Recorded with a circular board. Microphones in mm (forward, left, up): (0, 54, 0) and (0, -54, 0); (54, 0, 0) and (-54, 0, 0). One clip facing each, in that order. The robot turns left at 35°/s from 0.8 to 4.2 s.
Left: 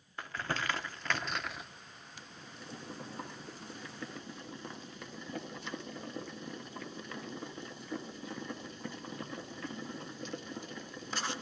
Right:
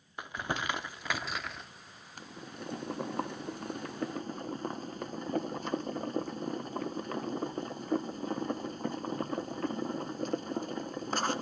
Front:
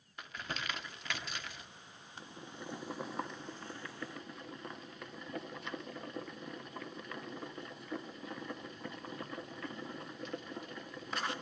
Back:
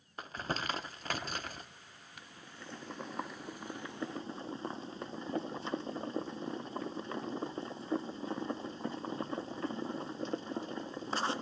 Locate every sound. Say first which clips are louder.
0.2 s crumpling: right 2 dB, back 5 dB; 155° right, 0.7 m; by 1.7 s 175° left, 0.7 m
2.2 s boiling: right 8 dB, front 5 dB; 55° right, 0.6 m; by 11.4 s 125° right, 0.6 m